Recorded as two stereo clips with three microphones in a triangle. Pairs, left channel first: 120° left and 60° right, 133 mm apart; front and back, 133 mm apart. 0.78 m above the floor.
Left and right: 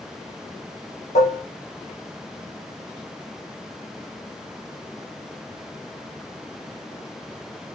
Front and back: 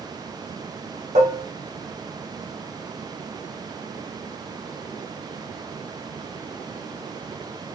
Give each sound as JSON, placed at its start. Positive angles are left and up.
{"t": 1.1, "sound": "dishes clattering", "azimuth_deg": 150, "distance_m": 1.3}